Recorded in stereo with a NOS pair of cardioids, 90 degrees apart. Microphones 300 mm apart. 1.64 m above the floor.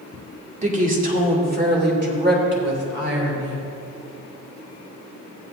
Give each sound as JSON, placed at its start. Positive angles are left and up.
{"t": 0.6, "sound": "a woman speaking", "azimuth_deg": -25, "distance_m": 2.5}